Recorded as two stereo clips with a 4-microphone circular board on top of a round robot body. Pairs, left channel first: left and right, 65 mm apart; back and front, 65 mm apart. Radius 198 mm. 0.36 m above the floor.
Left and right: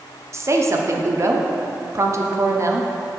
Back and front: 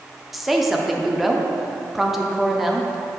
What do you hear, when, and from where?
0.3 s a woman speaking: 85° right, 1.0 m